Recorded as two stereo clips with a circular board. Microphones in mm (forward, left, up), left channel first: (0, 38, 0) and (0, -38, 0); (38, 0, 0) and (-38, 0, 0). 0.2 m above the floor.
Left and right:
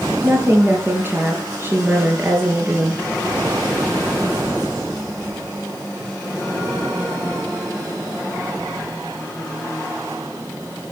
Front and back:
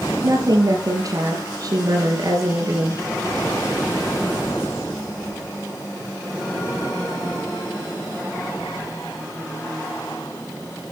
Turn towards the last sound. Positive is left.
turn(degrees=-150)